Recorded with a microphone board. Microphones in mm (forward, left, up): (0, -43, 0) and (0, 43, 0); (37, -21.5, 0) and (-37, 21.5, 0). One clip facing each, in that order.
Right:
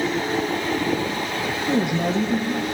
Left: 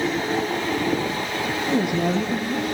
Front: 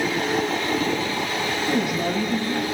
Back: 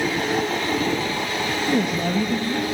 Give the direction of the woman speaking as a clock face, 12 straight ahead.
4 o'clock.